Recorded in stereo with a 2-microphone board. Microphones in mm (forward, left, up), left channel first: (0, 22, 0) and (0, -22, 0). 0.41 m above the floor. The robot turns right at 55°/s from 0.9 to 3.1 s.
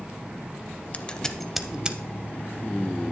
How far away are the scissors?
About 0.5 m.